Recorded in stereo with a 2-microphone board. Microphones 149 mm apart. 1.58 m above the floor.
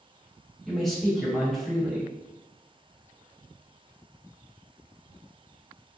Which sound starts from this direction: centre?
A man speaking, at 0.7 s.